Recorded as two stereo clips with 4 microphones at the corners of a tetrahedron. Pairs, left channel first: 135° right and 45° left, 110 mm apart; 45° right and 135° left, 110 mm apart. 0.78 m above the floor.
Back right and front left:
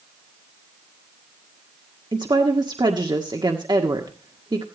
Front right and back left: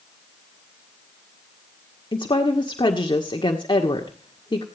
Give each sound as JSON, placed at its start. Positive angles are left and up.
{"t": 2.1, "sound": "a woman speaking", "azimuth_deg": 0, "distance_m": 1.7}